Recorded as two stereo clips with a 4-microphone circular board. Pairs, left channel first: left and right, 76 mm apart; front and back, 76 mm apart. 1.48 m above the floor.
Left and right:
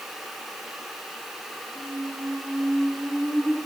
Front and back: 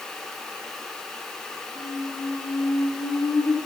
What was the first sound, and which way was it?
A squeak, 5° right.